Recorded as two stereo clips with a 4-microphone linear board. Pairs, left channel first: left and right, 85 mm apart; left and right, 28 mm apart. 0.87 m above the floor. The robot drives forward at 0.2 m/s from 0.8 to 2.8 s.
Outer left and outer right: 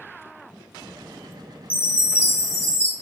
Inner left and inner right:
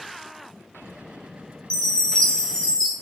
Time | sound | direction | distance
1.7 | a chime | 25° left (ahead or behind) | 0.6 m